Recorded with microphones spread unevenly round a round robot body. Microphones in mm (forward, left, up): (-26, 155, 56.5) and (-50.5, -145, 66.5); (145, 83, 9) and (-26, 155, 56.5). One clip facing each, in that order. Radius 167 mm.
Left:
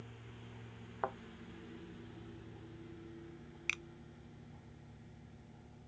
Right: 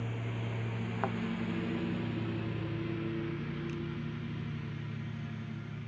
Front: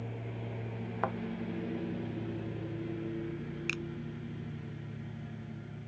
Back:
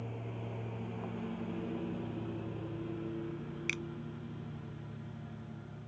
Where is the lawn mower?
110° right; by 5.9 s 105° right.